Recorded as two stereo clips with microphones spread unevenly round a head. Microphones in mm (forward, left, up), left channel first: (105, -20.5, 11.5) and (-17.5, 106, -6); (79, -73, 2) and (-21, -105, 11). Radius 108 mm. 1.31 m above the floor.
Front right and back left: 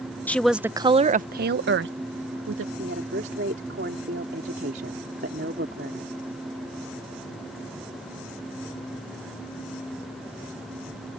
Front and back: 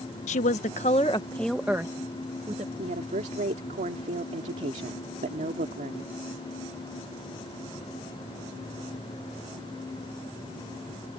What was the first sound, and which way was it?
A woman speaking, 35° left.